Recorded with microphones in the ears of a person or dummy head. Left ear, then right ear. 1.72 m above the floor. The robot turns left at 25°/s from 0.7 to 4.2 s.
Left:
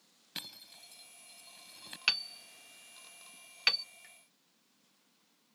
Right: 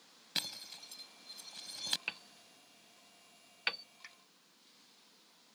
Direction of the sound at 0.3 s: 15° right (ahead or behind).